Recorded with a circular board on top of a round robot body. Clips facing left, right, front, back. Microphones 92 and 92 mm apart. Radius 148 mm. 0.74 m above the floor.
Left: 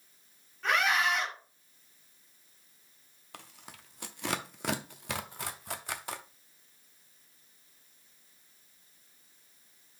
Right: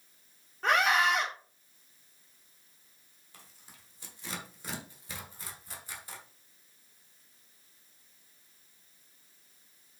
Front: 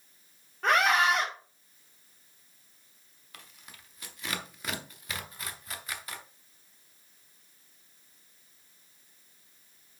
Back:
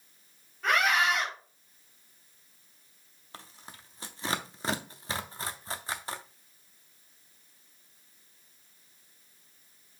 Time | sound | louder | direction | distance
0.6 | a scream | right 2 dB, front 2 dB | 35° right | 2.5 m
3.3 | tearing paper | left 8 dB, back 4 dB | 120° left | 0.6 m